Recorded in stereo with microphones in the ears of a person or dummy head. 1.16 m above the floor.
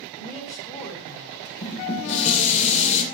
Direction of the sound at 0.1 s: 15° left (ahead or behind).